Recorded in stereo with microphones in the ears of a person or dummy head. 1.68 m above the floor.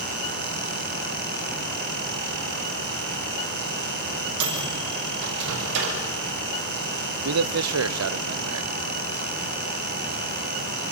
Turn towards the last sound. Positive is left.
turn(degrees=-80)